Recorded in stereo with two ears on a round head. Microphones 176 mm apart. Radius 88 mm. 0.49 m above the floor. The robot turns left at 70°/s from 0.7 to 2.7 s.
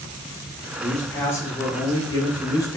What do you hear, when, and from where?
0.8 s a man speaking: centre (ahead or behind), 0.7 m; by 2.8 s 15° left (ahead or behind), 0.7 m